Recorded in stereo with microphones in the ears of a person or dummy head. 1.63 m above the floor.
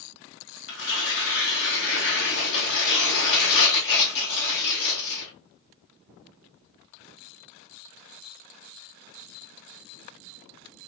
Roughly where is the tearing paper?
Left.